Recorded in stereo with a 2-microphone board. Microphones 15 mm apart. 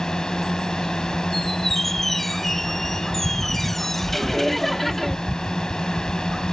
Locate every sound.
0.0 s a drone: 55° left (ahead or behind)
1.3 s a squeak: 25° left (ahead or behind)
4.1 s laughter: 5° left (ahead or behind)